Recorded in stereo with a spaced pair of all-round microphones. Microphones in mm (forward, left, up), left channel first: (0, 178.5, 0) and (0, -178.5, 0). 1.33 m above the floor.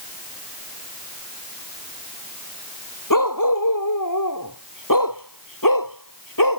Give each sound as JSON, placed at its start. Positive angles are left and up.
{"t": 3.1, "sound": "a dog barking", "side_deg": 60}